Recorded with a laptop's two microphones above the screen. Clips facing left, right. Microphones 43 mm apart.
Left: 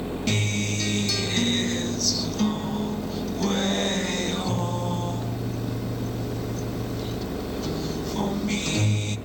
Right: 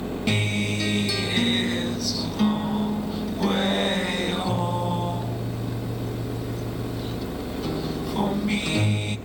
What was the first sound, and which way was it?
A guitar, 15° right (ahead or behind).